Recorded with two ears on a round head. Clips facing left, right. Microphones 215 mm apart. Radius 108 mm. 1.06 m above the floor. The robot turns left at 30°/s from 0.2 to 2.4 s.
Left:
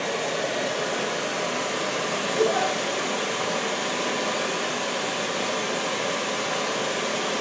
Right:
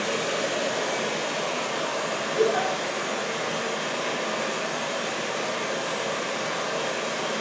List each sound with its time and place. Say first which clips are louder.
0.0 s running water: even; 165° right, 0.7 m; by 7.4 s 130° left, 0.7 m
2.4 s a giggle: even; 20° right (ahead or behind), 1.7 m; by 2.7 s 15° right (ahead or behind), 1.7 m